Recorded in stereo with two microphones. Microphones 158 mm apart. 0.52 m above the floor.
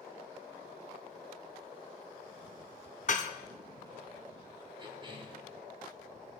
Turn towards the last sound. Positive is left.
turn(degrees=-30)  # may be behind; listen again after turning